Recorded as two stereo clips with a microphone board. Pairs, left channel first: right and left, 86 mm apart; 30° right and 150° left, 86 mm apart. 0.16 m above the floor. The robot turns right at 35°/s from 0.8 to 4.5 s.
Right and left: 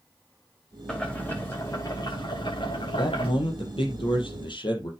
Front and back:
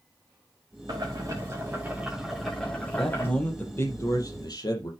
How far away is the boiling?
About 6 m.